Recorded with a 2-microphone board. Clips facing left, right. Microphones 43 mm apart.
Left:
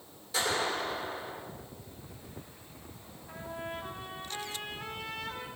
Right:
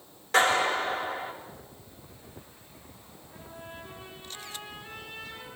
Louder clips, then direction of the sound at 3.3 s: Left 6 dB; 85° left.